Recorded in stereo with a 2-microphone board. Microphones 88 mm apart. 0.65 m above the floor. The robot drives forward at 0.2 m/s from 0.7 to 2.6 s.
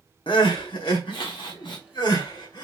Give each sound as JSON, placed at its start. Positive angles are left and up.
{"t": 0.3, "sound": "crying", "side_deg": 65, "distance_m": 1.0}